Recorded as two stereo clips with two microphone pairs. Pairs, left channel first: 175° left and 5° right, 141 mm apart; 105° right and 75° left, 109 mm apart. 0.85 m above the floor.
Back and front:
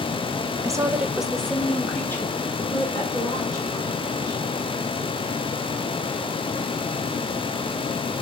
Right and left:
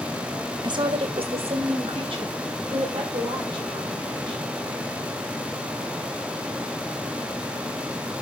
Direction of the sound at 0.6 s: 50° left.